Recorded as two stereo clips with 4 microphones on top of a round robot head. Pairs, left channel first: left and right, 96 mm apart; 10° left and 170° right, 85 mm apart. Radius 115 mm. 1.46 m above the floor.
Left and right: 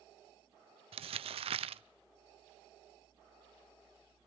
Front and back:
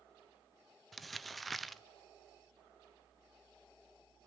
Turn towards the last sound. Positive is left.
turn(degrees=-80)